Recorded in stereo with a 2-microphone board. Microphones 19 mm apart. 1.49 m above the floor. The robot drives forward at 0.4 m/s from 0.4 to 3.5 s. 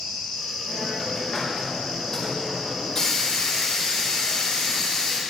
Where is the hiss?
20° left (ahead or behind), 6.5 m; by 5.2 s 25° left (ahead or behind), 5.5 m.